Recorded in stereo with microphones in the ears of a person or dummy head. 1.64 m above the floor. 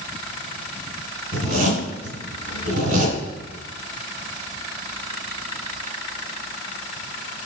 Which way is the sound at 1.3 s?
50° right (ahead or behind).